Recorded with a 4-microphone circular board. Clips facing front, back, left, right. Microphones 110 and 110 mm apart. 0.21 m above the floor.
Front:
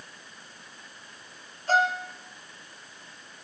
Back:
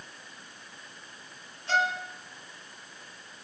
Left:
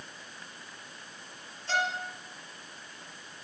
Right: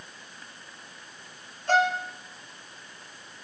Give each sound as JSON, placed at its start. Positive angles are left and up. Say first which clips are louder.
{"t": 1.7, "sound": "a violin", "louder": "front 4 dB, right 8 dB", "azimuth_deg": -50, "distance_m": 3.0}